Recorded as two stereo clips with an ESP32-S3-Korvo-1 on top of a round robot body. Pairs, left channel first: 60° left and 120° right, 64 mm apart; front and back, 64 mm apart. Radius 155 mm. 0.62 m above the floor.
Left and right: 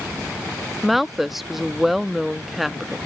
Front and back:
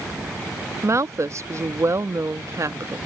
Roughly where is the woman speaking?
Behind left.